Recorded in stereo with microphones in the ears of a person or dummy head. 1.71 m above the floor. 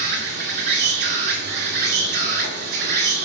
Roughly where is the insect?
Right.